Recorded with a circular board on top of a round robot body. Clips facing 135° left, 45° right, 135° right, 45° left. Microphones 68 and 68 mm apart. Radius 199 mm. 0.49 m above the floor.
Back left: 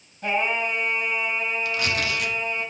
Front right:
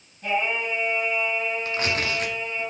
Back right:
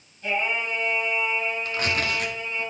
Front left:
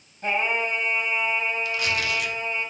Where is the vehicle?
No vehicle in this recording.